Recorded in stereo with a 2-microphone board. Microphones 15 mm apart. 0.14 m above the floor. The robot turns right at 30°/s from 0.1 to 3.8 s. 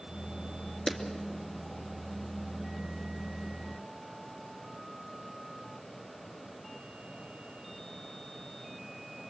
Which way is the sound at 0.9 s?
25° left (ahead or behind).